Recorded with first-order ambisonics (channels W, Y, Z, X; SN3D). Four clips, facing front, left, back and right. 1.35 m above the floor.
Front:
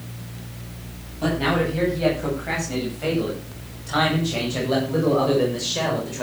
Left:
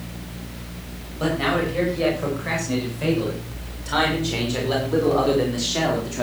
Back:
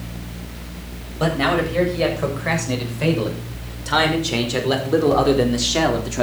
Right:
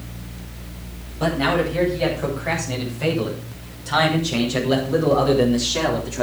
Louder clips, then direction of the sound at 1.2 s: Right 2 dB, back 2 dB; straight behind.